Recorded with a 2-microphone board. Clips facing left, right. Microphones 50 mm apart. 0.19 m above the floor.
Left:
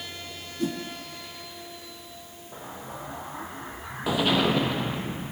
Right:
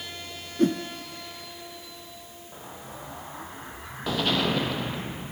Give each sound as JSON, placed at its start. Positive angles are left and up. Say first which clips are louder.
{"t": 0.6, "sound": "a whoosh", "louder": "right 7 dB", "side_deg": -55, "distance_m": 0.7}
{"t": 2.5, "sound": "an explosion", "louder": "left 4 dB", "side_deg": 10, "distance_m": 1.1}